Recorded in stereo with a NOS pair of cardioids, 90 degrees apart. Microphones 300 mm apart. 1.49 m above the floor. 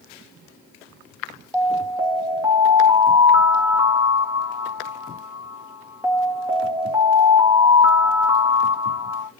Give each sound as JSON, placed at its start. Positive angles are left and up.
{"t": 1.5, "sound": "an alarm", "azimuth_deg": -10, "distance_m": 2.5}